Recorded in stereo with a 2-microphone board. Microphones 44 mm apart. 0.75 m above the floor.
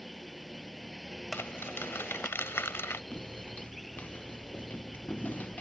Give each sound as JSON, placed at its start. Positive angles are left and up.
{"t": 0.0, "sound": "a drone", "side_deg": 0}
{"t": 1.3, "sound": "crumpling", "side_deg": 70}
{"t": 3.1, "sound": "footsteps", "side_deg": 35}